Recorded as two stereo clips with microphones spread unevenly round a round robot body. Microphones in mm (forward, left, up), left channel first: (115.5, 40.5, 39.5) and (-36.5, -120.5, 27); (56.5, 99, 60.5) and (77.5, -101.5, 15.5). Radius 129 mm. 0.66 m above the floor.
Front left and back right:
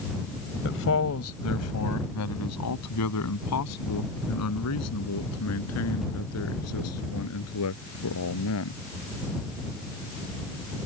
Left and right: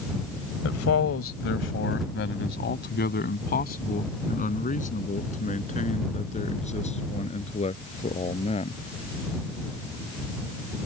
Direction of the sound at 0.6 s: 90° left.